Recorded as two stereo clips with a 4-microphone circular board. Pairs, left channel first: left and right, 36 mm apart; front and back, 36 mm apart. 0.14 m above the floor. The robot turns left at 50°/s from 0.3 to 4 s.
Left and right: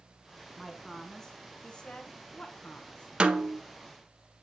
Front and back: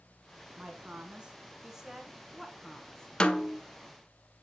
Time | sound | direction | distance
0.6 | a woman speaking | 170° right | 1.3 m
3.2 | a snare drum | 55° right | 0.6 m